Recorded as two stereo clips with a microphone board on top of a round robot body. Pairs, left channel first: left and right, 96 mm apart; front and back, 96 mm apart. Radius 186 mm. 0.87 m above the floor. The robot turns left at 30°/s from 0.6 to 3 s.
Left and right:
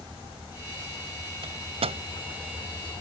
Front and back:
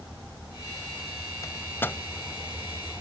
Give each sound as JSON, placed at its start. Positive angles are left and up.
{"t": 1.4, "sound": "a microwave", "azimuth_deg": -55}